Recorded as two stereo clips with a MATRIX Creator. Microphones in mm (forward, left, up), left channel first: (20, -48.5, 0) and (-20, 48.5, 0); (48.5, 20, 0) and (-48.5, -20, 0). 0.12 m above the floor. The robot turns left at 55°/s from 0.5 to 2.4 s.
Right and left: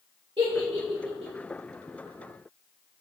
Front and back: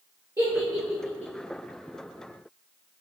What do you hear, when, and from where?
0.4 s a giggle: 145° left, 1.3 m; by 1.3 s 100° left, 1.3 m